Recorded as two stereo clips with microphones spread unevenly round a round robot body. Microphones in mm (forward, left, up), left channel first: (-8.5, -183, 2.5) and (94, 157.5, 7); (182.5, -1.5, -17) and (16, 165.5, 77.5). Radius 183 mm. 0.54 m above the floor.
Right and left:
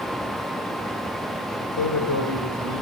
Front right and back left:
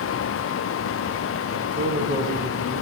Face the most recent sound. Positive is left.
turn(degrees=-150)